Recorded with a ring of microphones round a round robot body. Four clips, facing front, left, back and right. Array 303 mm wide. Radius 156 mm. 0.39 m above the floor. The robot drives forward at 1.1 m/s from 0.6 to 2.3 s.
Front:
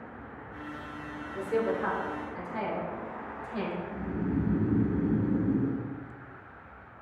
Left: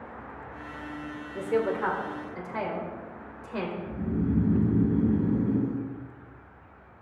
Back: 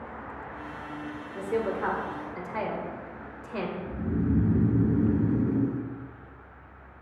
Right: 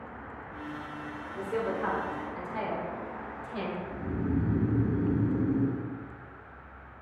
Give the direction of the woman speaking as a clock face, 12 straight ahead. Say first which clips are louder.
Left 5 dB, even; 9 o'clock.